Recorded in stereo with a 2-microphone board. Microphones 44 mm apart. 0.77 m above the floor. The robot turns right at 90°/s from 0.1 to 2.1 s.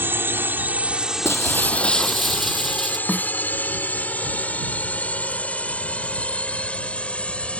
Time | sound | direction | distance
0.0 | a drone | 60° right (ahead or behind) | ?
1.2 | breaking glass | 100° left | ?
3.1 | a snare drum | 45° left (ahead or behind) | ?